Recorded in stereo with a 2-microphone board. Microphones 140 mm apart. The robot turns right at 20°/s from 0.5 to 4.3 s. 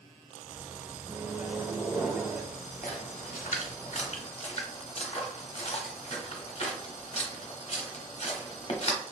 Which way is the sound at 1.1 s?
15° right (ahead or behind).